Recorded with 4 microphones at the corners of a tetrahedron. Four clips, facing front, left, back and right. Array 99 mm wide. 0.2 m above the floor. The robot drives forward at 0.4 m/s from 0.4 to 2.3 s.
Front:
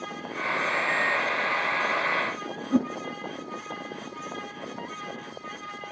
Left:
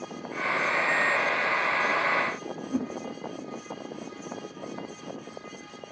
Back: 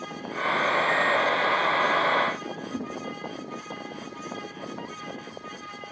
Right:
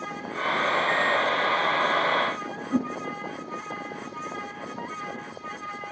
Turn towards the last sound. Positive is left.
turn(degrees=-20)